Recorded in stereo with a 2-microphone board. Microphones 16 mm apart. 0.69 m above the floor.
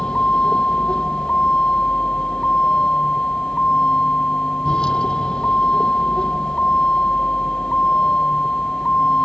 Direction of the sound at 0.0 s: 55° left (ahead or behind).